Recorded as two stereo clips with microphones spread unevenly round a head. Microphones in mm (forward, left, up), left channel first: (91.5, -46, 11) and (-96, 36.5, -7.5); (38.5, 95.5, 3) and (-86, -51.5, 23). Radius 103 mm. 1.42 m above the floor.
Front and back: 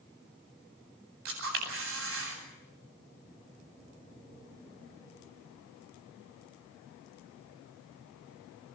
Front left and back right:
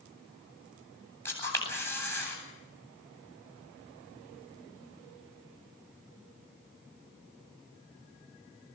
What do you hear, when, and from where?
1.2 s a camera shutter: 130° left, 8.5 m